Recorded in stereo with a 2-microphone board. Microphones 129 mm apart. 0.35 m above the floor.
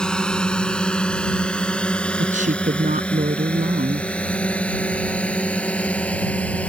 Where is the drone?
5° left (ahead or behind); by 6.7 s 10° left (ahead or behind).